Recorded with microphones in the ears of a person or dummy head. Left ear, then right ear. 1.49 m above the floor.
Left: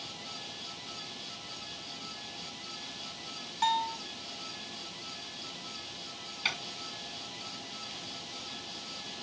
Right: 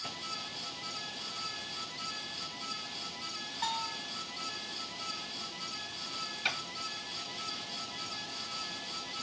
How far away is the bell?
About 1.2 m.